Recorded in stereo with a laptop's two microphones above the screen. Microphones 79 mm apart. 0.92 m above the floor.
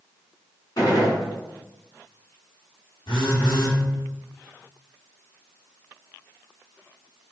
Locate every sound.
0.8 s a gunshot: 60° left (ahead or behind), 1.4 m
3.1 s a phone buzzing: 85° left, 1.2 m